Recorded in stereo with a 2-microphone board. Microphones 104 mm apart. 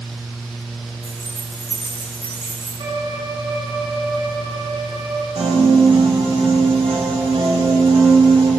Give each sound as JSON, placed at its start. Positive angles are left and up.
{"t": 1.0, "sound": "keys jangling", "side_deg": -30, "distance_m": 4.0}
{"t": 2.8, "sound": "a violin", "side_deg": -55, "distance_m": 3.5}
{"t": 5.3, "sound": "a piano", "side_deg": -65, "distance_m": 2.0}